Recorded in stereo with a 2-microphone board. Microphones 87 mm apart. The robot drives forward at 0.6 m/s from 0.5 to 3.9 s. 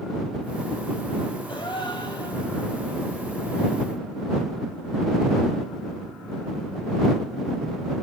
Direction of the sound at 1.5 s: 75° left (ahead or behind).